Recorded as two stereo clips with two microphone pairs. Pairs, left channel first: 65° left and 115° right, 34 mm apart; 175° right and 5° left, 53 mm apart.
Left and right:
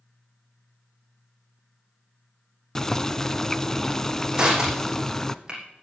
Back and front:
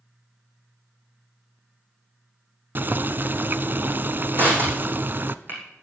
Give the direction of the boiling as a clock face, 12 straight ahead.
12 o'clock.